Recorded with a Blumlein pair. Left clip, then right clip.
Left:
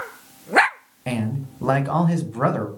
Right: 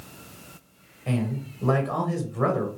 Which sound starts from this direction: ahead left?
A man speaking, at 1.1 s.